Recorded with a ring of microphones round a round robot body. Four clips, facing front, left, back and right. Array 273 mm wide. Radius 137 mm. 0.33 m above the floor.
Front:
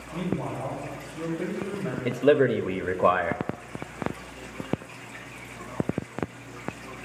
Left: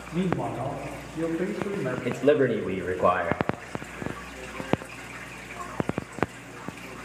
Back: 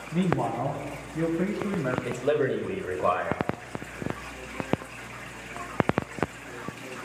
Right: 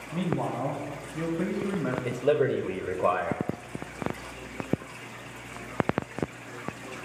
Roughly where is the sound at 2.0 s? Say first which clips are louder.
Left 4 dB, front 7 dB; ahead.